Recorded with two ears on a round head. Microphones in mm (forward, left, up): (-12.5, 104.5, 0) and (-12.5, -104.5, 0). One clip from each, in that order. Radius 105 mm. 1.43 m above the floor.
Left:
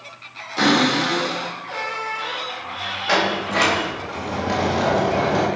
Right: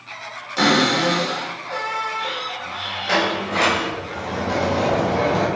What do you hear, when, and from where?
0.6 s a cupboard door: 25° right (ahead or behind), 3.5 m
3.1 s a sliding door: 10° left (ahead or behind), 1.8 m